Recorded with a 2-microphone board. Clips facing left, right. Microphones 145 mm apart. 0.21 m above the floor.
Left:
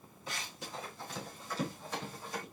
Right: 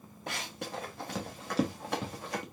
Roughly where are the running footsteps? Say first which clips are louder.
Right 5 dB; right.